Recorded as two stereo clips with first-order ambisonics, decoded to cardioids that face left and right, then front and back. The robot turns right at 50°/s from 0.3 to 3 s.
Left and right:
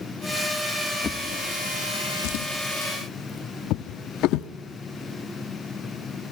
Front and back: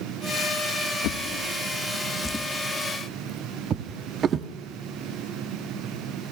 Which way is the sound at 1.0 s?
25° left.